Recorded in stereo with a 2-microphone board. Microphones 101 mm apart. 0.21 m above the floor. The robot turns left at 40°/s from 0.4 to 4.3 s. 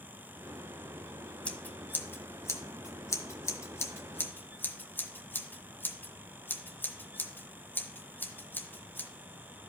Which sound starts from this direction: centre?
Scissors, at 1.4 s.